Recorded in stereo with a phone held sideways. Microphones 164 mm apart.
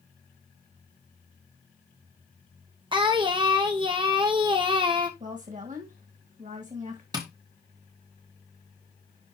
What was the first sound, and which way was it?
Singing, 30° right (ahead or behind).